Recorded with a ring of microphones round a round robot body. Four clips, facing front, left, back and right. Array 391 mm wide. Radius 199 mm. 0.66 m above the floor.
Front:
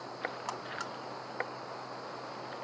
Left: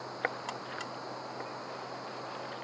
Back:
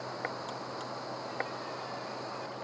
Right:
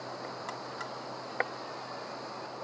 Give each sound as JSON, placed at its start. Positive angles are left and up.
{"t": 0.5, "sound": "a buzzer", "azimuth_deg": 15}